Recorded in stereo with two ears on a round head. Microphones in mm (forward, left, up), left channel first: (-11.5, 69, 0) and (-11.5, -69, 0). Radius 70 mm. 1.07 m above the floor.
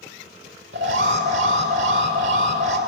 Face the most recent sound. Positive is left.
turn(degrees=-80)